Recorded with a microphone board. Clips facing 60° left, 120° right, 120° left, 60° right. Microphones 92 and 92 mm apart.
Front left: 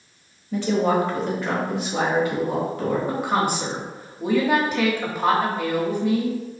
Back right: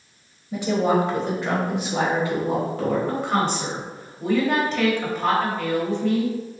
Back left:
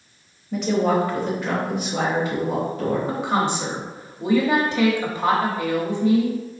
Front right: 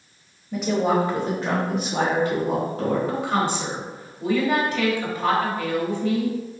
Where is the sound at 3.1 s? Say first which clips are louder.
Even, back left 1 dB; 120° left, 1.0 m.